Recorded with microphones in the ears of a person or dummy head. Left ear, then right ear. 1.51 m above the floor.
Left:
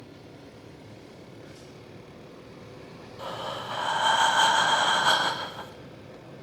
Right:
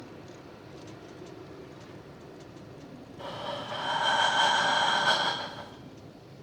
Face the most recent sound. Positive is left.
turn(degrees=15)  # may be behind; listen again after turning